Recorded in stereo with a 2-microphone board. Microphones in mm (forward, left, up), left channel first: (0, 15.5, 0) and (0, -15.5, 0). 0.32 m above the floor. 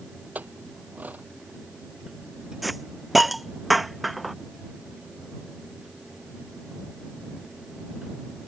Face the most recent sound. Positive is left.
turn(degrees=0)  # may be behind; listen again after turning